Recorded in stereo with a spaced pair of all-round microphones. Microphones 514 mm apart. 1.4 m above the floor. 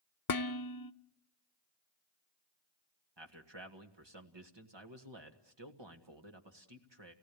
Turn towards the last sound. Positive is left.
turn(degrees=-55)  # may be behind; listen again after turning